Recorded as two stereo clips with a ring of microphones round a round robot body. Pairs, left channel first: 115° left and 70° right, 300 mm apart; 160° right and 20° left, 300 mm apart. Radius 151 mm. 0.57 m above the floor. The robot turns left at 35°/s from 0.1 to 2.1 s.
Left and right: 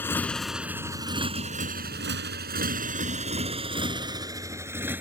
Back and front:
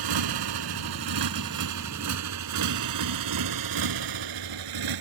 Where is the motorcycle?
30° left; by 5.0 s 15° left.